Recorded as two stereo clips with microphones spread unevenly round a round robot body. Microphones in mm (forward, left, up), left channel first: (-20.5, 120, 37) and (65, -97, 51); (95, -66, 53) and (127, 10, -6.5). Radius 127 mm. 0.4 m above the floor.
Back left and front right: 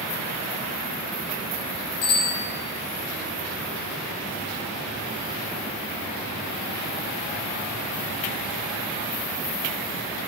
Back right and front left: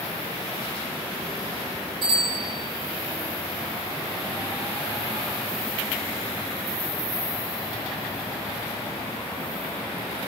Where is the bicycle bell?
90° left, 7.5 m.